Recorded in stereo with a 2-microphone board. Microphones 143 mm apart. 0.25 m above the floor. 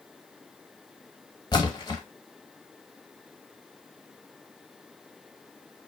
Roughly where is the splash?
Left.